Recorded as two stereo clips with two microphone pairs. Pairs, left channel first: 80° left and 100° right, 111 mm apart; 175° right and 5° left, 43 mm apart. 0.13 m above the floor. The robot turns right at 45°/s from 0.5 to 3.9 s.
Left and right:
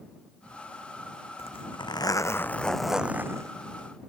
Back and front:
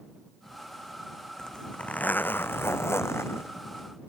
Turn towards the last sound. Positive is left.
turn(degrees=-145)